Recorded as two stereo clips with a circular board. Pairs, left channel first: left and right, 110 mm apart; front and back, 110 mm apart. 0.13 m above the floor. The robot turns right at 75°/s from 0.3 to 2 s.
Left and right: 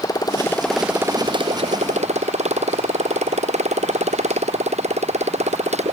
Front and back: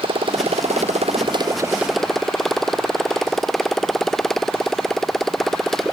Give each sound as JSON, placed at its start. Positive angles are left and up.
{"t": 0.0, "sound": "a motorcycle", "azimuth_deg": 145}